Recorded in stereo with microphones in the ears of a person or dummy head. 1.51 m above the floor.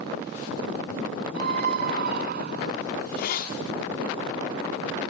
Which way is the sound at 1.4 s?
55° right (ahead or behind).